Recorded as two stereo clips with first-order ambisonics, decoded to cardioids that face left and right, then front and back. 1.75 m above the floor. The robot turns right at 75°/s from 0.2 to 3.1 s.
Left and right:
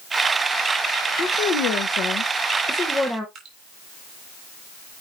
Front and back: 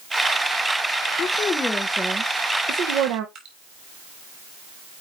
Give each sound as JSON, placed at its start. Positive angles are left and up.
{"t": 1.2, "sound": "a woman speaking", "azimuth_deg": 40, "distance_m": 1.2}
{"t": 3.4, "sound": "dripping", "azimuth_deg": -140, "distance_m": 3.0}